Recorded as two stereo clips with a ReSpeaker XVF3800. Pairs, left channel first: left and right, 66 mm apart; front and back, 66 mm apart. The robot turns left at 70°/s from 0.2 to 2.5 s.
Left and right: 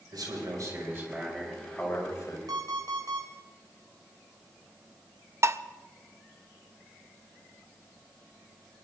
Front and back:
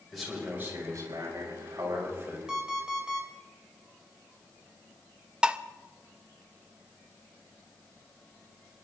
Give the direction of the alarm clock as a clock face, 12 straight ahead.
3 o'clock.